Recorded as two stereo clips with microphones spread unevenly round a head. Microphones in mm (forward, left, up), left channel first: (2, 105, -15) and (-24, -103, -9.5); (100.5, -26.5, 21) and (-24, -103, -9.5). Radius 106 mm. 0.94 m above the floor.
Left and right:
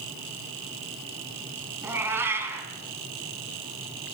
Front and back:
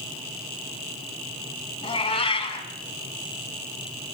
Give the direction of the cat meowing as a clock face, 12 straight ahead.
1 o'clock.